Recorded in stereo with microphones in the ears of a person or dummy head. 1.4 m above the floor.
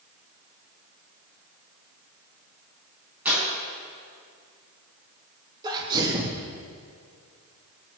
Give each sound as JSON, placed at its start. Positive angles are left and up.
{"t": 3.2, "sound": "tearing paper", "side_deg": -5, "distance_m": 8.0}
{"t": 5.6, "sound": "a sneeze", "side_deg": -15, "distance_m": 1.9}